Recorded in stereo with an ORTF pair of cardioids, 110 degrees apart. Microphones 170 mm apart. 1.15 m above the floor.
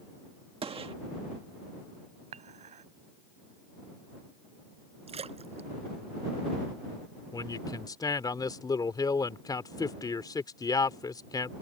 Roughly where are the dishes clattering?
Ahead right.